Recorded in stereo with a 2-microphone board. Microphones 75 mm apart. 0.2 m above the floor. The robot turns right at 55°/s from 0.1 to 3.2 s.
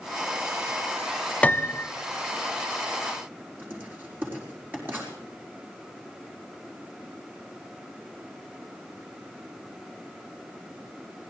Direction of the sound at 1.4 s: 20° left (ahead or behind).